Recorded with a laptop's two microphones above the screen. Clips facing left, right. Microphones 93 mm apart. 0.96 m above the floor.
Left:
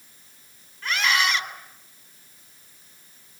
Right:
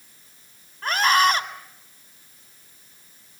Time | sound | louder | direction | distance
0.8 | a scream | right 5 dB | 40° right (ahead or behind) | 4 m